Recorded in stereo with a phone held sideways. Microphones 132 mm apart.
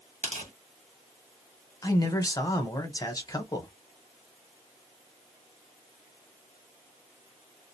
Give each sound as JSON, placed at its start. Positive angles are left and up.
{"t": 0.2, "sound": "tearing paper", "side_deg": -65, "distance_m": 1.2}
{"t": 1.8, "sound": "a man speaking", "side_deg": 30, "distance_m": 0.9}